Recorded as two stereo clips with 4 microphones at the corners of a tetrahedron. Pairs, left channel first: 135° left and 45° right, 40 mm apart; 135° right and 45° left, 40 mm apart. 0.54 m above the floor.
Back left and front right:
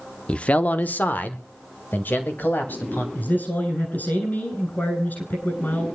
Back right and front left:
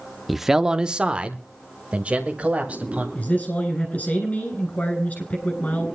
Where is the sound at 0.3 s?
135° left, 0.6 m; by 3.0 s 95° left, 3 m.